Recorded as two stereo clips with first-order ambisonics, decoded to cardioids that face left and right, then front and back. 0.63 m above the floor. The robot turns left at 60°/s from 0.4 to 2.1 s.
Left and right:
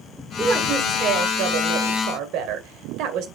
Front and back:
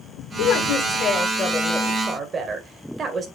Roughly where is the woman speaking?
Ahead.